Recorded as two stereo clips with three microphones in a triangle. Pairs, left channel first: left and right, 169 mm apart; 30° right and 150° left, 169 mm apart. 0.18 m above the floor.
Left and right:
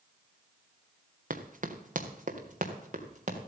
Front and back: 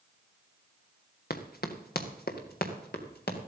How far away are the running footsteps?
About 1.6 m.